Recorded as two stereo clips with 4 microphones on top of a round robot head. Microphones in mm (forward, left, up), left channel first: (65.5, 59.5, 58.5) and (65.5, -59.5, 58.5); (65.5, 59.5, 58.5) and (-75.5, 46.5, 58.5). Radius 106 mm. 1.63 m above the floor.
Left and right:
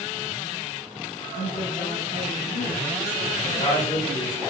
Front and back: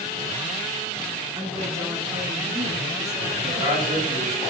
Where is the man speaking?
145° left, 4 m.